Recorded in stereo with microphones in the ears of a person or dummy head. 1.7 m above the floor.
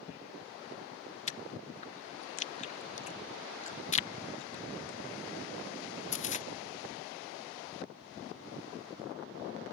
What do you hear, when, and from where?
1.3 s chewing: 35° left (ahead or behind)